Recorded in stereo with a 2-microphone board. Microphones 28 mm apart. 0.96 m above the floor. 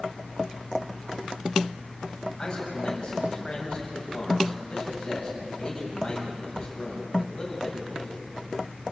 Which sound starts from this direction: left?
A man speaking, at 2.4 s.